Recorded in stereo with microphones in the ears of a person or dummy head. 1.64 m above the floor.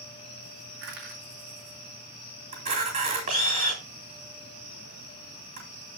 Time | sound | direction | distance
0.8 | crushing | 65° right (ahead or behind) | 3 m
2.5 | a camera shutter | 35° right (ahead or behind) | 3.5 m